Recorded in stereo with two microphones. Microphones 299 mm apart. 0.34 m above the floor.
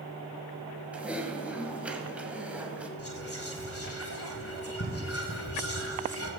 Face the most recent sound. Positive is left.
turn(degrees=50)  # may be behind; listen again after turning